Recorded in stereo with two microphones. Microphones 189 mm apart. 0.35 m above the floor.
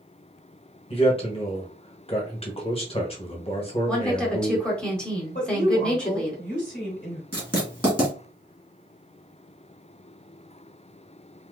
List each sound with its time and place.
0.9 s a man speaking: 30° left (ahead or behind), 1.2 m
3.9 s a woman speaking: 5° left (ahead or behind), 1.1 m
5.3 s a woman speaking: 40° left (ahead or behind), 1.5 m
7.3 s writing: 25° right (ahead or behind), 1.7 m